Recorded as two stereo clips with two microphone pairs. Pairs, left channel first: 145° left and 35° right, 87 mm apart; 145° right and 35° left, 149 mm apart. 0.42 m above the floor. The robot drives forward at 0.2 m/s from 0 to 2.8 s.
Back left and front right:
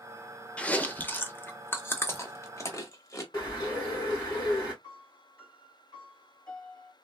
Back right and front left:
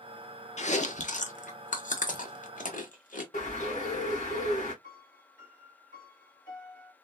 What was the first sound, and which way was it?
Chewing, 145° right.